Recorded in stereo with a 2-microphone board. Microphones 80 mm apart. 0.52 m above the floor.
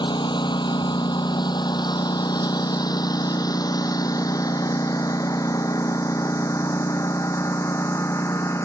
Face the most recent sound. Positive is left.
turn(degrees=35)  # may be behind; listen again after turning